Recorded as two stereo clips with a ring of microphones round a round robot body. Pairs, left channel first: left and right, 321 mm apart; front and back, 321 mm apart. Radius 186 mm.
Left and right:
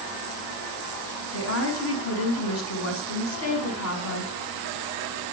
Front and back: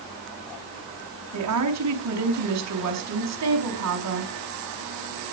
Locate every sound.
1.3 s a woman speaking: 140° left, 5.5 m